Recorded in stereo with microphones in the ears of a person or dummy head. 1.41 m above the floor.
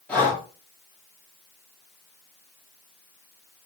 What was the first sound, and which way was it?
Breathing, 10° left (ahead or behind).